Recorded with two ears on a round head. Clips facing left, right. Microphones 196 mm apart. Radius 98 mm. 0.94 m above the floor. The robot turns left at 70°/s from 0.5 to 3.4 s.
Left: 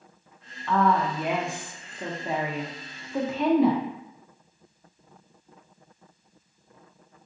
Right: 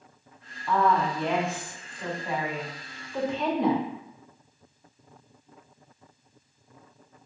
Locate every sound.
0.7 s a woman speaking: 5° right (ahead or behind), 0.6 m; by 3.8 s centre (ahead or behind), 0.6 m